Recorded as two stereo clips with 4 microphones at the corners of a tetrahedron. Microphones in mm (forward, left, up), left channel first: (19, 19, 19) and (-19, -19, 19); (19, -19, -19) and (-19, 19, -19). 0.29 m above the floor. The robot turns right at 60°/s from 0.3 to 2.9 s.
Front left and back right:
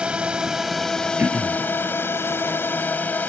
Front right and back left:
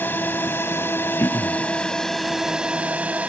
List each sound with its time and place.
0.0 s a drone: 75° right; by 3.3 s 80° left
1.2 s throat clearing: 85° right; by 1.6 s 55° right